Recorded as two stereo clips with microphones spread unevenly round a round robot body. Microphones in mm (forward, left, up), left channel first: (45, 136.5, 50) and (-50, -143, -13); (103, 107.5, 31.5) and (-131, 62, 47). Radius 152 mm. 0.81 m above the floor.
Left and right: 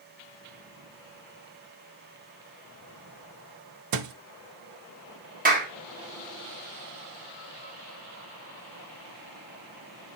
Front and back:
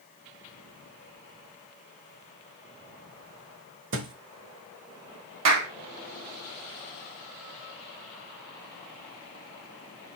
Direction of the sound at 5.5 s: 170° right.